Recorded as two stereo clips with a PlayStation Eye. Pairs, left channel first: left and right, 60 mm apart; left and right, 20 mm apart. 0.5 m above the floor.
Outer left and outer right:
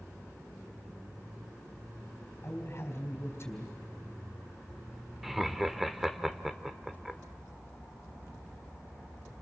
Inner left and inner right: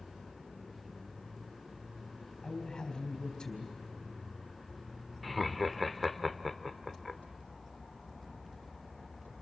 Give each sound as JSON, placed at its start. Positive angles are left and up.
{"t": 2.4, "sound": "a man speaking", "side_deg": 45, "distance_m": 4.0}
{"t": 5.2, "sound": "laughter", "side_deg": -5, "distance_m": 1.3}